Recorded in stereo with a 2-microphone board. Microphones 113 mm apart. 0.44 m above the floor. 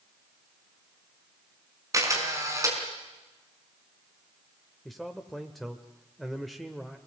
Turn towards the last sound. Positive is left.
turn(degrees=0)  # may be behind; listen again after turning